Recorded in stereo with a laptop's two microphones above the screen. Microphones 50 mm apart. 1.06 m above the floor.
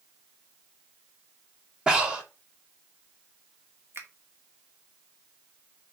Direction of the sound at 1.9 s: 15° right (ahead or behind).